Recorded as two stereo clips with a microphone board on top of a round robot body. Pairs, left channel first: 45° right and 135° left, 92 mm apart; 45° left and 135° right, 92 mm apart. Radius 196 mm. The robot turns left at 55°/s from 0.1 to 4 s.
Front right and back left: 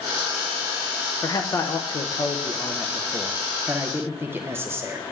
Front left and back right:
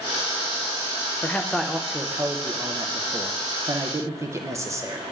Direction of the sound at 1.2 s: 20° right.